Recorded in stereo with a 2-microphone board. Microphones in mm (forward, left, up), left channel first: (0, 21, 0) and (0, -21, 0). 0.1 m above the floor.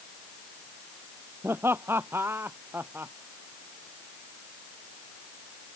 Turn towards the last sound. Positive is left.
turn(degrees=-60)  # may be behind; listen again after turning